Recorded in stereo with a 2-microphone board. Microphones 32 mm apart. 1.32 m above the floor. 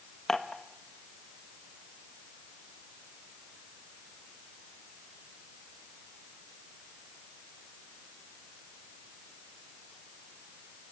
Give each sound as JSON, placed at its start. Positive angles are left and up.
{"t": 0.3, "sound": "dishes clattering", "side_deg": 15, "distance_m": 1.1}